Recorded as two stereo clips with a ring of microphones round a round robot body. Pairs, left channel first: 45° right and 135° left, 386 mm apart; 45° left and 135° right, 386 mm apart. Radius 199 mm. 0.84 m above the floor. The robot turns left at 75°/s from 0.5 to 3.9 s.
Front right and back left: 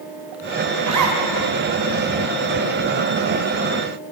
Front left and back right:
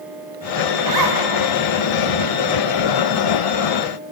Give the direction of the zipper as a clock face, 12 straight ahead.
5 o'clock.